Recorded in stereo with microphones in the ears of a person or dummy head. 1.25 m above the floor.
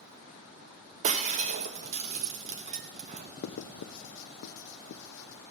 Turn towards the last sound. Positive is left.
turn(degrees=65)  # may be behind; listen again after turning